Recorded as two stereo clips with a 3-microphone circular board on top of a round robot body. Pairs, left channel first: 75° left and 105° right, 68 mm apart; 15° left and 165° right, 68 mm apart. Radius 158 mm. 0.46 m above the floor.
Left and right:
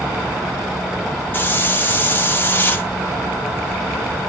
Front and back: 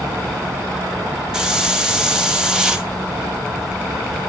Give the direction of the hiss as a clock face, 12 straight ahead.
8 o'clock.